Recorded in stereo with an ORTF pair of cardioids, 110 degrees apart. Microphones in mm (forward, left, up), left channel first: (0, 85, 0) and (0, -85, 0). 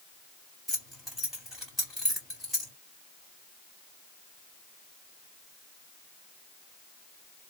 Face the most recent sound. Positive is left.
turn(degrees=0)